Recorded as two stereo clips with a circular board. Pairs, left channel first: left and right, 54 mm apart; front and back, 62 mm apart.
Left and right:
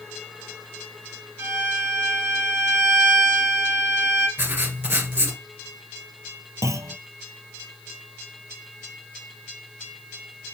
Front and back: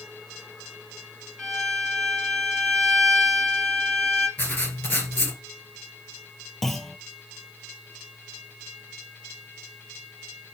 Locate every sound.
1.4 s a violin: 85° right, 3 m
4.4 s writing: 55° right, 2.5 m
6.6 s a clunk: 85° right, 0.5 m